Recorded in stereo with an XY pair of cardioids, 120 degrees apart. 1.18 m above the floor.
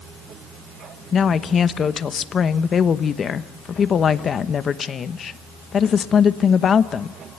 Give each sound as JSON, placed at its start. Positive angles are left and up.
{"t": 1.1, "sound": "a woman speaking", "azimuth_deg": 40, "distance_m": 1.0}